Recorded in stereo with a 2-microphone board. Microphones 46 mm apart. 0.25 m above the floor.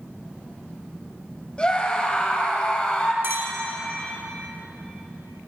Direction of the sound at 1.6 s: 25° left (ahead or behind).